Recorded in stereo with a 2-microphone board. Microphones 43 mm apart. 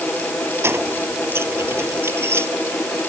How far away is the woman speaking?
No woman speaking in this recording.